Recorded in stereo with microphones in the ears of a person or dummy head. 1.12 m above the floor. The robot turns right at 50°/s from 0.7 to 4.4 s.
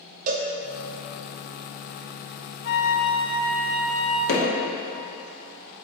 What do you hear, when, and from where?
0.3 s a cowbell: 45° right (ahead or behind), 1.0 m
2.6 s a flute: 60° left, 1.3 m; by 4.2 s 140° left, 1.3 m
4.3 s hammering: 70° left (ahead or behind), 2.5 m; by 4.5 s 75° left (ahead or behind), 2.5 m